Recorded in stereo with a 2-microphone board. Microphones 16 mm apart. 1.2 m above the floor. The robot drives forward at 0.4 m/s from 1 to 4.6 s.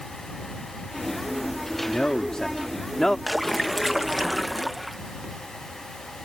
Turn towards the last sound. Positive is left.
turn(degrees=0)  # may be behind; listen again after turning